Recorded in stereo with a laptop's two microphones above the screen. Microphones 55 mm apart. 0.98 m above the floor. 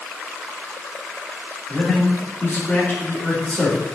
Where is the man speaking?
40° left (ahead or behind), 2 m.